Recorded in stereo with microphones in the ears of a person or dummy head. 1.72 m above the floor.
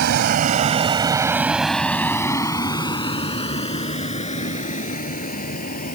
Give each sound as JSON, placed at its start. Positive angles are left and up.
{"t": 0.0, "sound": "a vehicle", "side_deg": -60}